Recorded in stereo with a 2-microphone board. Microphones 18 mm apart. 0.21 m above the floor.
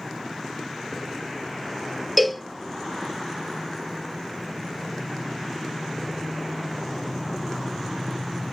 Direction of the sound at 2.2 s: 5° right (ahead or behind).